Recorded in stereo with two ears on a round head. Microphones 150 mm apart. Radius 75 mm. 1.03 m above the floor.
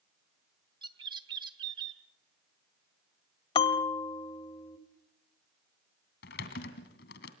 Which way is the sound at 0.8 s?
25° right (ahead or behind).